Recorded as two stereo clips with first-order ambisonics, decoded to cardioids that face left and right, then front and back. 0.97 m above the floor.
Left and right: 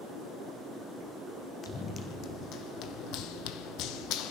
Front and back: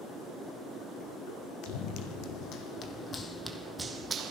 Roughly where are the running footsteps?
Ahead left.